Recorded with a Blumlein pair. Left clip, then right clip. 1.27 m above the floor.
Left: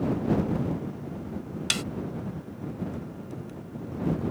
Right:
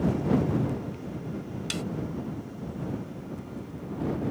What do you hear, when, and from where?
1.7 s a snare drum: 65° left